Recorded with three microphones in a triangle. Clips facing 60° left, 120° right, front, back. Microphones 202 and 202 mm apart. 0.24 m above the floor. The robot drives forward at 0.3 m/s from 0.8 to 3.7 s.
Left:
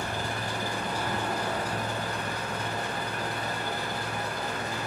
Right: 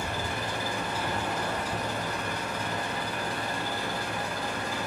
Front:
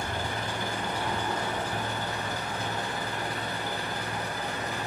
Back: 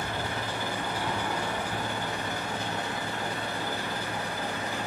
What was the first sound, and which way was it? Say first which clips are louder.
An engine running: even, even; 95° left.